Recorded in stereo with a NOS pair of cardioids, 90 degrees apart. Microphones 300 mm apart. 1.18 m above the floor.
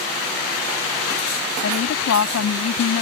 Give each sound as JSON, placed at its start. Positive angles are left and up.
{"t": 1.6, "sound": "a woman speaking", "azimuth_deg": 55}